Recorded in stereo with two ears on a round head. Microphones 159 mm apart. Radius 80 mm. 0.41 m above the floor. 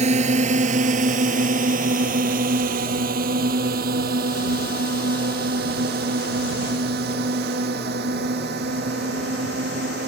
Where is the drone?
40° right (ahead or behind); by 10.1 s 65° right (ahead or behind).